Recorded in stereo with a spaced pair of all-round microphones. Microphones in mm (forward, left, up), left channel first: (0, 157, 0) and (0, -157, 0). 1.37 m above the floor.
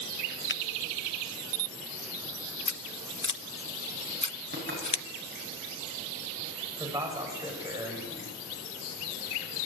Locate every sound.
0.5 s a finger snap: 35° left (ahead or behind), 0.9 m
2.7 s scissors: 60° left (ahead or behind), 0.8 m
4.5 s knocking: 30° right (ahead or behind), 8.5 m
6.8 s a man speaking: 10° right (ahead or behind), 8 m